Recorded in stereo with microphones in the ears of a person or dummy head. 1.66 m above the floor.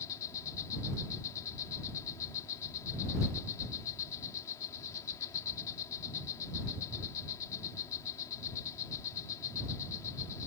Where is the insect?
20° left (ahead or behind).